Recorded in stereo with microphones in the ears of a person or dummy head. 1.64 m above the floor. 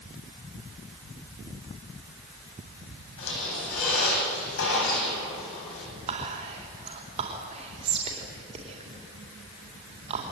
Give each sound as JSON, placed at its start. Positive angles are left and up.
{"t": 3.2, "sound": "a squeak", "side_deg": 75, "distance_m": 9.0}
{"t": 6.1, "sound": "whispering", "side_deg": -35, "distance_m": 3.5}